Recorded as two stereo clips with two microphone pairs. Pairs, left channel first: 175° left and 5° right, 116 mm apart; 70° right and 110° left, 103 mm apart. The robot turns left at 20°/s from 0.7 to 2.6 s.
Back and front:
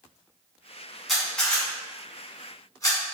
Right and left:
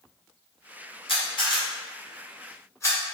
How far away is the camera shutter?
About 1.4 m.